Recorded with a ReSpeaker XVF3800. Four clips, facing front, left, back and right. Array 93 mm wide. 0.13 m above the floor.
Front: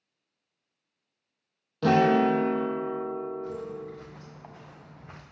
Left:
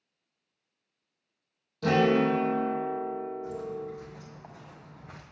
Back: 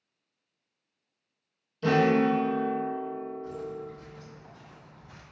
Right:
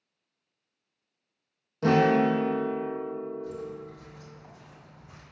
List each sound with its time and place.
1.8 s a guitar: 25° right, 1.5 m
3.4 s footsteps: 25° left, 2 m; by 5.2 s 40° left, 1.0 m